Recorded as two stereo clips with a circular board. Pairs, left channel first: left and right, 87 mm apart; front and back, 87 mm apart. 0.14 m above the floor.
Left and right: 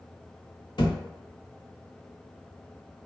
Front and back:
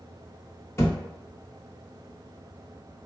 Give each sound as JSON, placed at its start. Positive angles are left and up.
{"t": 0.8, "sound": "a thud", "azimuth_deg": 60, "distance_m": 1.0}